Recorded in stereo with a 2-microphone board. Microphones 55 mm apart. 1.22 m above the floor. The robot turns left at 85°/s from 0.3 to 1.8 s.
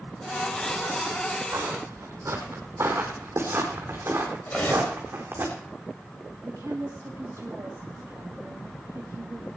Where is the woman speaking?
70° right (ahead or behind), 2.5 m.